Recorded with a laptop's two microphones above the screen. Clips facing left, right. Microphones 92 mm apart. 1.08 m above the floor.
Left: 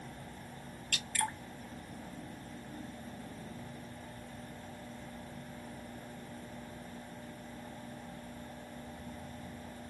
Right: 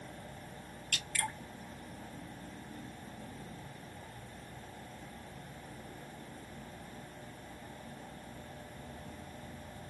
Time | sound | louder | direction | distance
0.9 | dripping | left 3 dB | 35° left (ahead or behind) | 1.6 m